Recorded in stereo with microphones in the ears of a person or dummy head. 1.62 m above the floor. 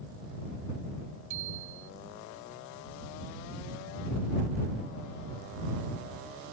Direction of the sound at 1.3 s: 40° right (ahead or behind).